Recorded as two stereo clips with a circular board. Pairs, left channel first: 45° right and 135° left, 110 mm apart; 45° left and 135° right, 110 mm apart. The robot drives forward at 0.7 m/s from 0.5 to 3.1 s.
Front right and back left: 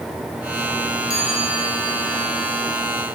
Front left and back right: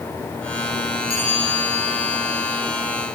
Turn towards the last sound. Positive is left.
turn(degrees=15)